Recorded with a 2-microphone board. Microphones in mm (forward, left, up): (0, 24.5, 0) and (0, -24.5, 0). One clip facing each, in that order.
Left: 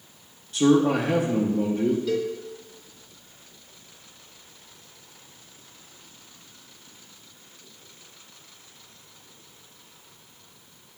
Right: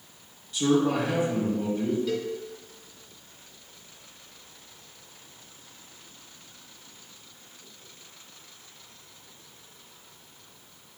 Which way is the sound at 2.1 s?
Centre (ahead or behind).